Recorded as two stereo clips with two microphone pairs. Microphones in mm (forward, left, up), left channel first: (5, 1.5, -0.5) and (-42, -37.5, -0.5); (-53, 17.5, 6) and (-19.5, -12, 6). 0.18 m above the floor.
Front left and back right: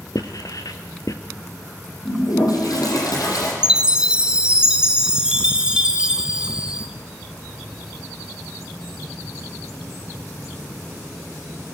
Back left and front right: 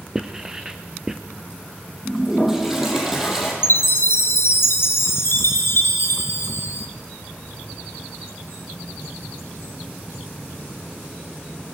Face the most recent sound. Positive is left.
turn(degrees=145)